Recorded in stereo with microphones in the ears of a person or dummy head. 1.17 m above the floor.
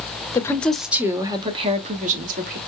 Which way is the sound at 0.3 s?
15° left (ahead or behind).